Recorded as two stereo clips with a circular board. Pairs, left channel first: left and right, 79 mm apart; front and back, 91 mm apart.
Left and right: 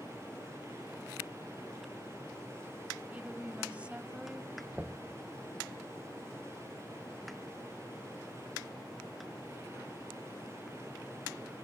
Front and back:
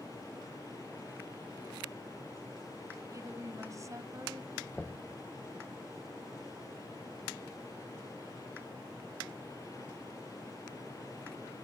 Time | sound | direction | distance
3.1 | a woman speaking | 155° right | 1.4 m
4.7 | knocking | 50° right | 0.7 m